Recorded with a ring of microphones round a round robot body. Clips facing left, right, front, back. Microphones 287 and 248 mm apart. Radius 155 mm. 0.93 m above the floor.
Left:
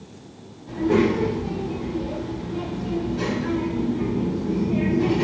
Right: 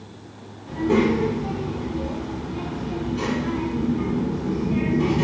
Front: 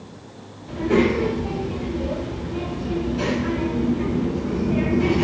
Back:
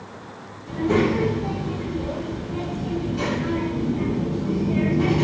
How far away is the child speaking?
About 1.8 m.